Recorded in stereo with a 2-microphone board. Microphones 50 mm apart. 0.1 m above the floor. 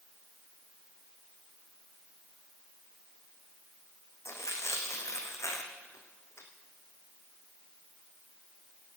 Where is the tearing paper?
70° left (ahead or behind), 1.9 m.